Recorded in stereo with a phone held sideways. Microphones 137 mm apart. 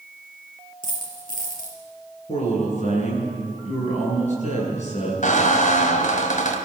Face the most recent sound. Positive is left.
turn(degrees=70)  # may be behind; listen again after turning